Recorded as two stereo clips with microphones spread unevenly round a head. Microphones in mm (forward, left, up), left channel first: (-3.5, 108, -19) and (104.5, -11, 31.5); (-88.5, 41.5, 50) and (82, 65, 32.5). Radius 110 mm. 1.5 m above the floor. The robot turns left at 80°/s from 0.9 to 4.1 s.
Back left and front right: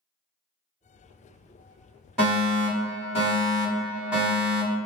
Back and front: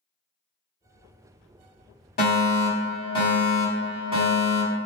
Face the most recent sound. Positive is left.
turn(degrees=50)